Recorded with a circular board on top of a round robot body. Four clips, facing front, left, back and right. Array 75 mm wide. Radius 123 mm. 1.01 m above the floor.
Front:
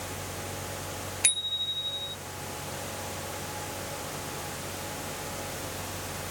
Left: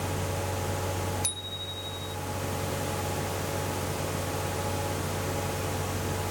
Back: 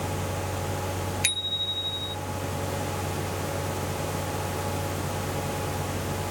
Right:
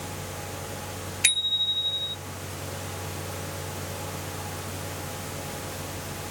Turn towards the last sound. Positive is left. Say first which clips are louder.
# right 7 dB, back 4 dB
turn(degrees=-100)